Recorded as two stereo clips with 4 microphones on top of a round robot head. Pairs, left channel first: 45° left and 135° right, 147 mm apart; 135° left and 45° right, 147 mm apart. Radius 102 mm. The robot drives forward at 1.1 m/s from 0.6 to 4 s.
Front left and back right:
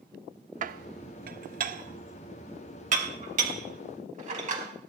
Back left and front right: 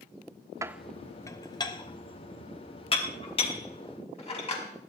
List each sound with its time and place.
0.6 s dishes clattering: 110° right, 0.6 m; by 4.9 s 175° right, 4 m